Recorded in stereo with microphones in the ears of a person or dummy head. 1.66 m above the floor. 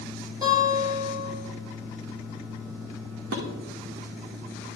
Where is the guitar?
20° right (ahead or behind), 4.5 m.